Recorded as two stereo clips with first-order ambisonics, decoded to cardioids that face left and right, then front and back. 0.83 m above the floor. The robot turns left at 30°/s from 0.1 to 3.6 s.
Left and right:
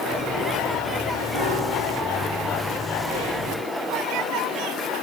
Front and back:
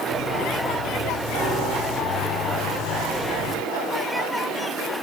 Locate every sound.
1.3 s a piano: 125° left, 1.8 m; by 2.4 s 95° left, 1.8 m